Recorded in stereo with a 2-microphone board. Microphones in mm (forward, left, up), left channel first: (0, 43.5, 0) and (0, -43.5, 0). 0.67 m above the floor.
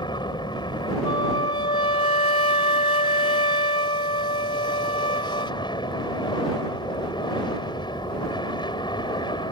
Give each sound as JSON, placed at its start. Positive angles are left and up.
{"t": 0.0, "sound": "an aircraft", "side_deg": 65}
{"t": 1.1, "sound": "a flute", "side_deg": 70}